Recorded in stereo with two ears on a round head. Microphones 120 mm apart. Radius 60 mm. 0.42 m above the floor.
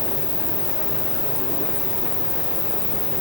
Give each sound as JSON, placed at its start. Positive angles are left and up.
{"t": 0.0, "sound": "an insect", "side_deg": 55, "distance_m": 1.2}